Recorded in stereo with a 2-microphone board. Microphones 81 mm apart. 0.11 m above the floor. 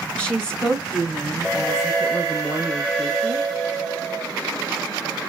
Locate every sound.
0.2 s a woman speaking: 15° left (ahead or behind), 1.5 m; by 3.5 s 20° right (ahead or behind), 1.9 m